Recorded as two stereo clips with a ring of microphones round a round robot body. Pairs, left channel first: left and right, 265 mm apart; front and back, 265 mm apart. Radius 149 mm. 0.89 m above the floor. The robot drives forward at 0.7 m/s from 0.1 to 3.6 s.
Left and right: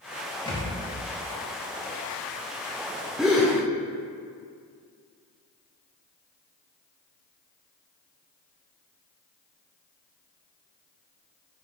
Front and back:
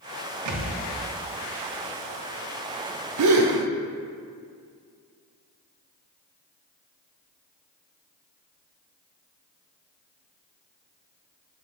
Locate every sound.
0.5 s a thud: 165° left, 1.2 m
3.2 s a gasp: straight behind, 0.7 m